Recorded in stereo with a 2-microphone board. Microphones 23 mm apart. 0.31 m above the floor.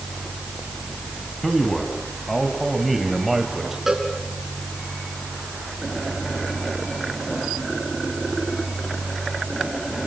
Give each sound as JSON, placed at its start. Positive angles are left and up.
{"t": 1.4, "sound": "a man speaking", "side_deg": 15, "distance_m": 3.0}
{"t": 3.9, "sound": "a cowbell", "side_deg": -15, "distance_m": 4.5}